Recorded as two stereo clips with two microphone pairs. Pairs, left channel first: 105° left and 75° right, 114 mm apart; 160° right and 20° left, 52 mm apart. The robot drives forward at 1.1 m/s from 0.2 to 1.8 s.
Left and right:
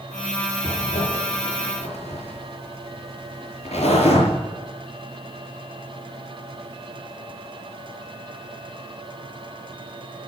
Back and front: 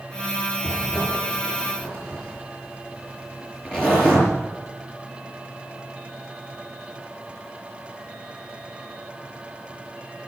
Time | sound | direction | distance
0.6 | a zipper | 105° left | 4.5 m